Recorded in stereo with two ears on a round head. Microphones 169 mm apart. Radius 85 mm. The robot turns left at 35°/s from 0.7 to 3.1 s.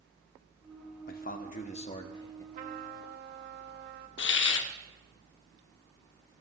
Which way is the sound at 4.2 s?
70° left (ahead or behind).